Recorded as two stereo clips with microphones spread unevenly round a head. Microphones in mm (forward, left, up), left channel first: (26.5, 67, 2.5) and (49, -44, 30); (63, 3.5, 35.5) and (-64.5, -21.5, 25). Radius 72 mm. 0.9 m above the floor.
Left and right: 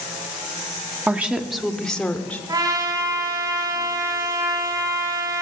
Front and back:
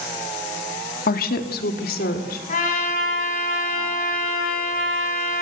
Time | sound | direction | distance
1.1 | a woman speaking | straight ahead | 2.0 m
2.5 | a trumpet | 20° right | 6.5 m